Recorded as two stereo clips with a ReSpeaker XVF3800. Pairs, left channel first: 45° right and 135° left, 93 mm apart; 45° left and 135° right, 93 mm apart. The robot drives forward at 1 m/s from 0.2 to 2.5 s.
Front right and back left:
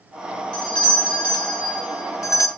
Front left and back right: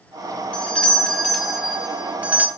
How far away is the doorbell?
About 3 m.